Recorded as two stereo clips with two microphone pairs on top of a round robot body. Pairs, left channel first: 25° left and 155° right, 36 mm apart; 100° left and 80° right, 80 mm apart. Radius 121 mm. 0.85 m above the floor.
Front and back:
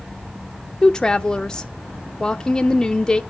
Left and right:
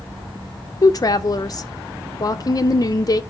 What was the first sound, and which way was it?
A woman speaking, 80° left.